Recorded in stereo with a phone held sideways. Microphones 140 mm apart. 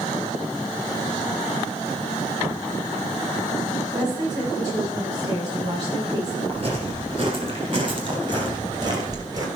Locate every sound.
3.9 s a woman speaking: 30° right (ahead or behind), 7 m
6.5 s footsteps: 40° right (ahead or behind), 4 m; by 9.5 s 25° right (ahead or behind), 2.5 m